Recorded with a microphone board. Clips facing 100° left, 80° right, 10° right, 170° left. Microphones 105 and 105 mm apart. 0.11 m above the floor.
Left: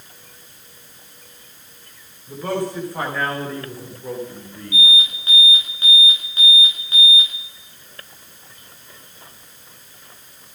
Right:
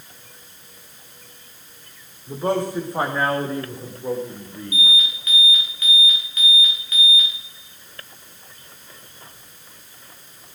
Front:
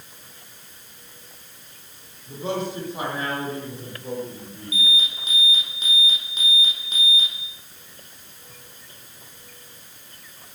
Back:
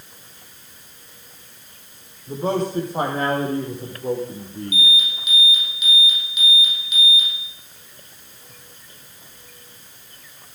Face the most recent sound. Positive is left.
turn(degrees=45)